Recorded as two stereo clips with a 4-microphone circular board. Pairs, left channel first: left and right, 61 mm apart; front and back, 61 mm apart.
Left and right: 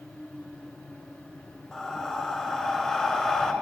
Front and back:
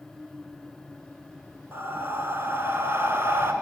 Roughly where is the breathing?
Behind.